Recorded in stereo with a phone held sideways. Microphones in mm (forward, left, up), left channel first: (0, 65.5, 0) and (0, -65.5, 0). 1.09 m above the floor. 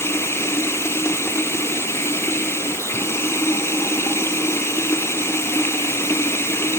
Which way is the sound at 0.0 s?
20° left (ahead or behind).